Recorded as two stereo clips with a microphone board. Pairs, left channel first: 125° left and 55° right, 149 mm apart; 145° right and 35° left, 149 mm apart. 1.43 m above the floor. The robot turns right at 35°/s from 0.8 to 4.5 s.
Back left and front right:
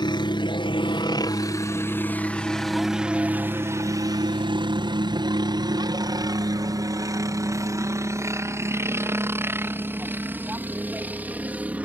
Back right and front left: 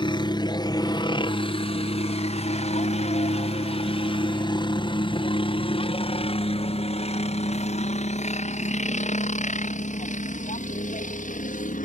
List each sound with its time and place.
0.0 s a helicopter: 170° left; by 11.8 s 135° right